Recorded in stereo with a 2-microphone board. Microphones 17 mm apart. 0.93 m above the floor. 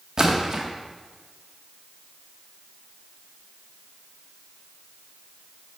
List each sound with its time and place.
0.2 s a splash: 35° right (ahead or behind), 1.3 m